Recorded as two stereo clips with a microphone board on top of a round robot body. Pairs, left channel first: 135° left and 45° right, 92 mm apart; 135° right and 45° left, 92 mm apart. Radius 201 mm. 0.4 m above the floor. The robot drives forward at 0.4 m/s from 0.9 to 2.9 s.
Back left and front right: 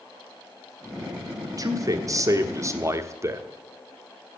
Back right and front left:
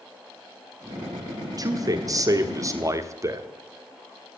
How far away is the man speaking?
About 1.5 m.